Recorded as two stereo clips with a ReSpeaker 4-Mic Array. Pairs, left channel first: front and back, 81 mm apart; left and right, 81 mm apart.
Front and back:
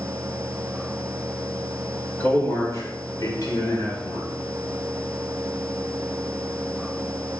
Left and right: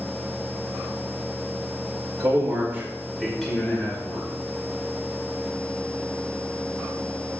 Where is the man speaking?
60° right, 2 m; by 4.3 s 30° left, 3 m.